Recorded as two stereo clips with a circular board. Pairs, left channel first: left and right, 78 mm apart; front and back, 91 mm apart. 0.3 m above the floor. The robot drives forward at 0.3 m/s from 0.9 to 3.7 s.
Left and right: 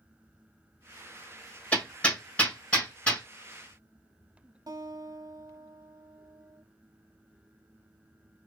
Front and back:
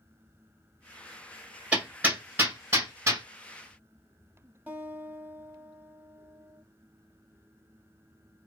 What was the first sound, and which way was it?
Hammering, 130° left.